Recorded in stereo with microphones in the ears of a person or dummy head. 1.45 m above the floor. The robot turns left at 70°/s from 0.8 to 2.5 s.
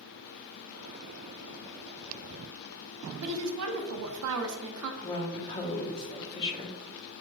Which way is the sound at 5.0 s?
30° left (ahead or behind).